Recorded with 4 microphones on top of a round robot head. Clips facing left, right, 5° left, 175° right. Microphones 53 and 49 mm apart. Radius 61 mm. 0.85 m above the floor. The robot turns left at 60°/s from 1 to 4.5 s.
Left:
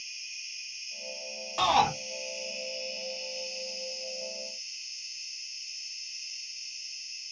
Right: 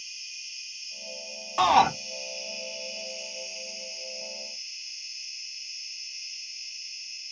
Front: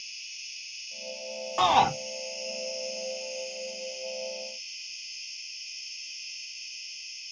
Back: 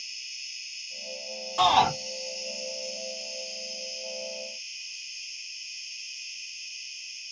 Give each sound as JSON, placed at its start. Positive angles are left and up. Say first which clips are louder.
{"t": 0.0, "sound": "an insect", "louder": "even, back 1 dB", "azimuth_deg": 105, "distance_m": 1.9}
{"t": 1.6, "sound": "a shout", "louder": "right 4 dB, back 1 dB", "azimuth_deg": -35, "distance_m": 0.6}